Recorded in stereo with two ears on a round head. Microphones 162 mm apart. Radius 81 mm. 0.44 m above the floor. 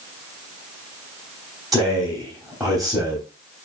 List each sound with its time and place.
1.7 s a man speaking: centre (ahead or behind), 3 m